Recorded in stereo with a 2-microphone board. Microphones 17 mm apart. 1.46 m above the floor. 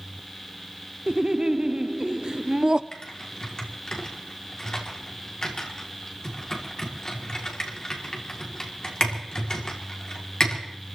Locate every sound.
1.1 s laughter: 50° right (ahead or behind), 0.5 m
2.9 s typing on a keyboard: 35° left (ahead or behind), 2.5 m